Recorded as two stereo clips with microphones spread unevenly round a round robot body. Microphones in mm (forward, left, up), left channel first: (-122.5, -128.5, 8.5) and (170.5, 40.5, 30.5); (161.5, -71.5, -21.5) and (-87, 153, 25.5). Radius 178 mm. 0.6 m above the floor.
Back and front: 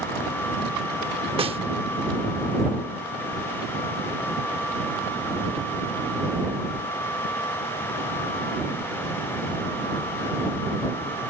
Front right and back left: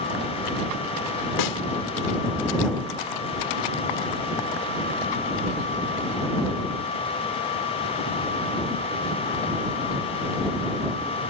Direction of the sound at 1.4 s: 45° right.